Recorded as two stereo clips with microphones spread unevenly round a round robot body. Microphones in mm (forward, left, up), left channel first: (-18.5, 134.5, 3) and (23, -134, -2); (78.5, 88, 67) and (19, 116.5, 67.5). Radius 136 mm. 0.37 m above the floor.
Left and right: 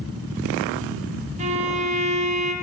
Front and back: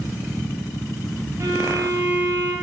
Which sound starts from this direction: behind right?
A violin, at 1.4 s.